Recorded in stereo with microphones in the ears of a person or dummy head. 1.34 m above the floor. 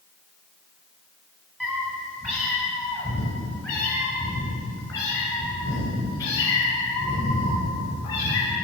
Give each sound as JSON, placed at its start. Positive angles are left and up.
{"t": 1.6, "sound": "a cat meowing", "side_deg": 0, "distance_m": 3.0}